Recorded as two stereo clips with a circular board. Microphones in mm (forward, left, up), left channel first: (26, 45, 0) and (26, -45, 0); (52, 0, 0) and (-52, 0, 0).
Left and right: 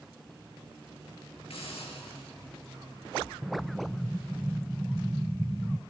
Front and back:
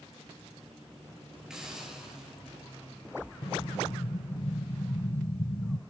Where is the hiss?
95° left, 8 m.